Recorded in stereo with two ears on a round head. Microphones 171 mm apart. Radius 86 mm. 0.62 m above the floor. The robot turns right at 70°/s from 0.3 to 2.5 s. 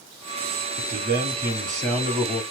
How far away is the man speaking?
About 1.7 m.